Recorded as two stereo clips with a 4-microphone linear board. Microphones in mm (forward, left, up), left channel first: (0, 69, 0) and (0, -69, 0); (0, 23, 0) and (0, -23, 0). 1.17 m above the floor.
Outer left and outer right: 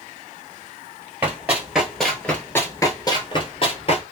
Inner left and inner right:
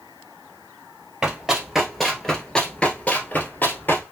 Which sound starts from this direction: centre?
Running footsteps, at 1.2 s.